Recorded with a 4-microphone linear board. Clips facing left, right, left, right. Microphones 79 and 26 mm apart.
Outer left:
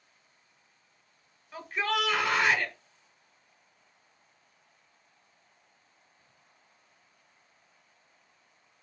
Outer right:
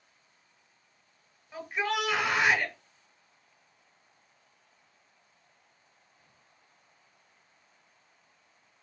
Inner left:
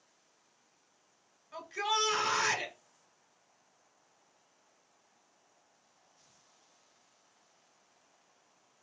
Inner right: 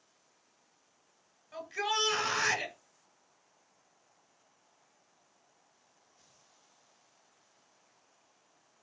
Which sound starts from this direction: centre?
A shout, at 1.5 s.